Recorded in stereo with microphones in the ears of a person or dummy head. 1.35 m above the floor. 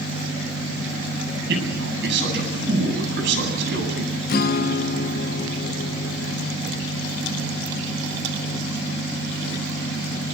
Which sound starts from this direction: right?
A man speaking, at 1.5 s.